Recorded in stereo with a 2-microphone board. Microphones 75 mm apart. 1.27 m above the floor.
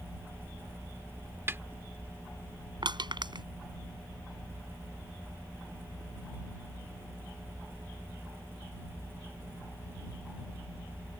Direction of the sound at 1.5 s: 30° right (ahead or behind).